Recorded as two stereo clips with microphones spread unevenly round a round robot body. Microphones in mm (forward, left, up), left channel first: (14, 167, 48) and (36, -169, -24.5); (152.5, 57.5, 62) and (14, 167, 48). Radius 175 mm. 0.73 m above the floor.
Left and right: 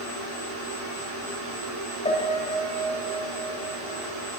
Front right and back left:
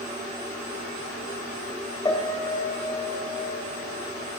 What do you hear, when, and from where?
2.0 s a piano: 25° left, 1.7 m